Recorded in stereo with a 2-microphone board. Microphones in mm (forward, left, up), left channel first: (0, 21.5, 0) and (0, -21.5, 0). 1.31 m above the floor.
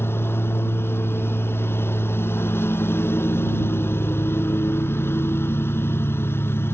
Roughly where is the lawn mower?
Left.